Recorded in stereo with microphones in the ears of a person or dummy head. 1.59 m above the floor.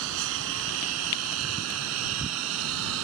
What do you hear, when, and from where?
0.0 s a lawn mower: 70° right (ahead or behind); by 3.0 s 75° right (ahead or behind)